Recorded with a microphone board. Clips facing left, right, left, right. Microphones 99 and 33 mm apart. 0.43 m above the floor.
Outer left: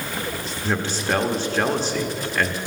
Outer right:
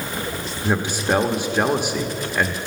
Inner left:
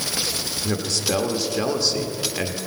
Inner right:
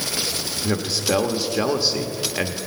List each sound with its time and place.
0.6 s a man speaking: 15° right (ahead or behind), 0.8 m